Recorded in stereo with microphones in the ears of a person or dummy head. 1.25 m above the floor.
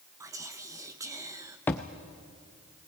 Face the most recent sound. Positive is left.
turn(degrees=10)  # may be behind; listen again after turning